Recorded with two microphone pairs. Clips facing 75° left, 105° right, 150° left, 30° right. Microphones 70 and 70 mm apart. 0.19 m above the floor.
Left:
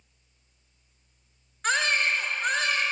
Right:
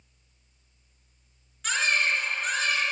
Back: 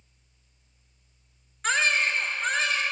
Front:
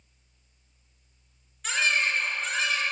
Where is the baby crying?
120° left, 2 m.